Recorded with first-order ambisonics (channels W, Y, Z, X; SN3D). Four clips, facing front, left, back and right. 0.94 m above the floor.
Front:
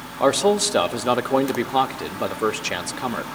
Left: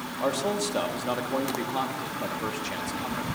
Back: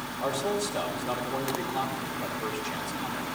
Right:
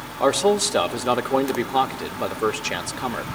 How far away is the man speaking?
About 1.6 m.